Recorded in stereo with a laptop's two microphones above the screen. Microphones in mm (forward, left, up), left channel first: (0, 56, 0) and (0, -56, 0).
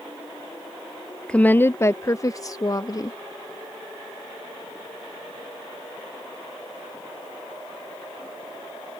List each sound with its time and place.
1.3 s a woman speaking: 10° left (ahead or behind); by 3.2 s 35° left (ahead or behind)